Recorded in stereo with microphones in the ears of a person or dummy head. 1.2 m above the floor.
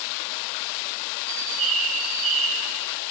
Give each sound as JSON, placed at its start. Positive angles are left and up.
{"t": 1.3, "sound": "a bird", "side_deg": -35, "distance_m": 0.6}